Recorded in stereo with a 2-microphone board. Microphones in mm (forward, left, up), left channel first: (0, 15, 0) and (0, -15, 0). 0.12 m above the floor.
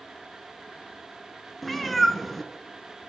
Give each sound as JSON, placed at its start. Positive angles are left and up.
{"t": 1.6, "sound": "a cat meowing", "side_deg": 5, "distance_m": 0.6}